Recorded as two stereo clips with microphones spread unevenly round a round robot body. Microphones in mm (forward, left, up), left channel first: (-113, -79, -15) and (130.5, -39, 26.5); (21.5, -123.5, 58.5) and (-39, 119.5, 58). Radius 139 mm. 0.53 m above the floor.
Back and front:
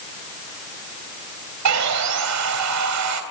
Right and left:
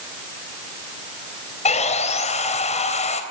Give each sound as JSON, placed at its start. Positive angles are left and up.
{"t": 1.6, "sound": "sawing", "azimuth_deg": -10, "distance_m": 3.0}